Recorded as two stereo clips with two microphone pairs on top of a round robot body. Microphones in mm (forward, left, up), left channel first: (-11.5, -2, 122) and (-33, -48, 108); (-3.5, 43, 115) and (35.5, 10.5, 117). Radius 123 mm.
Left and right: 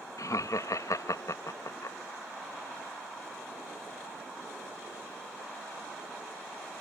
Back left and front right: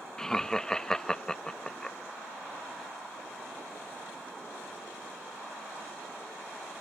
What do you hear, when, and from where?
0.2 s laughter: 65° left